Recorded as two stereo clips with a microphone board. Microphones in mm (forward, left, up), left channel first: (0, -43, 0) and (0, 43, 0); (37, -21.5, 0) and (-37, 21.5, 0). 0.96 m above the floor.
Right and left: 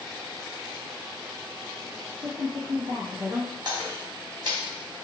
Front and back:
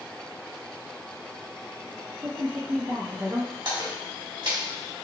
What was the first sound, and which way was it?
A woman speaking, 120° left.